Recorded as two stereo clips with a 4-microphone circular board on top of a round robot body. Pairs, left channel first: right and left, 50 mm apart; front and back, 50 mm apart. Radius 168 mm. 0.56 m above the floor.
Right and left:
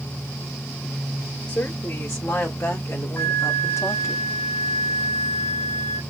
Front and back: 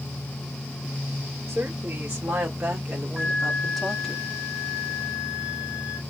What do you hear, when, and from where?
1.5 s a woman speaking: 125° right, 2.5 m; by 4.2 s 80° right, 1.7 m
3.2 s a flute: 120° right, 1.4 m